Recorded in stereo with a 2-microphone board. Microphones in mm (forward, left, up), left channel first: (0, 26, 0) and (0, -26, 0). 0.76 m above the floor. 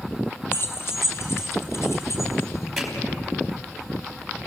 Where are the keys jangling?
45° left (ahead or behind), 2.0 m; by 2.5 s 55° left (ahead or behind), 4.5 m.